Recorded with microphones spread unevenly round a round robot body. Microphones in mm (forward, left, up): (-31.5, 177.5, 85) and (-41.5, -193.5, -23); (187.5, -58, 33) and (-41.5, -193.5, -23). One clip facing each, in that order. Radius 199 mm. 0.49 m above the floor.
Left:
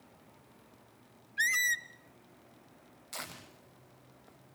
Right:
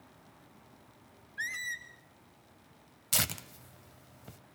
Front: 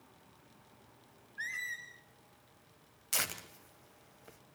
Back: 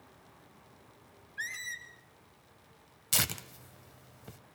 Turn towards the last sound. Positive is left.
turn(degrees=-110)